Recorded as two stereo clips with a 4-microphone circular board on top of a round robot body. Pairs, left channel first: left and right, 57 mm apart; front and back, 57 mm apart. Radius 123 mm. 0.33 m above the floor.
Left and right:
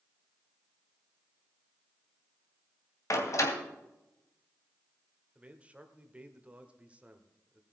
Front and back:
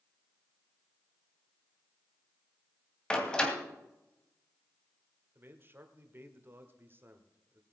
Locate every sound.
3.1 s a door slam: 75° left, 2.5 m
5.3 s a man speaking: 150° right, 1.8 m